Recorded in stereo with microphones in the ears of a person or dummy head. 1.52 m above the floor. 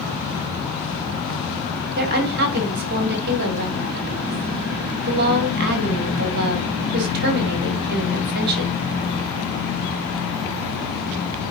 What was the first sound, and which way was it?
A woman speaking, 50° right (ahead or behind).